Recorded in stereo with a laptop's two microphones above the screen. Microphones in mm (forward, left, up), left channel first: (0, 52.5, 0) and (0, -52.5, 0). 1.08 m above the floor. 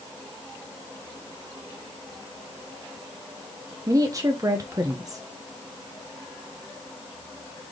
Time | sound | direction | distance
3.9 | a woman speaking | 30° right (ahead or behind) | 0.7 m